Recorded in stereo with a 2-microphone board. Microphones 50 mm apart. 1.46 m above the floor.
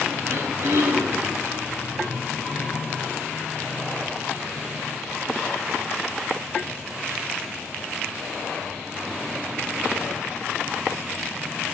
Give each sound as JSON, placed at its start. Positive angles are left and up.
{"t": 0.3, "sound": "throat clearing", "side_deg": -70, "distance_m": 3.5}